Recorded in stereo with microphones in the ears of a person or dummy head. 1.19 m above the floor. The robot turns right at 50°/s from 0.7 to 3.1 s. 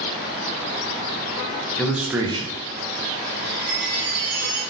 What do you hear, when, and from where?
1.8 s a man speaking: 175° left, 0.6 m; by 2.5 s 150° right, 0.6 m
3.4 s a chime: 65° right (ahead or behind), 1.7 m